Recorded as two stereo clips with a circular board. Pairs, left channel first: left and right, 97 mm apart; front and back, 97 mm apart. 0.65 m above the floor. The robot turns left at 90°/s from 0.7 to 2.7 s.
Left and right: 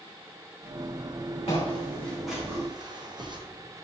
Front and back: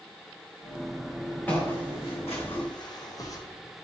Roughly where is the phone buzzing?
I don't hear a phone buzzing.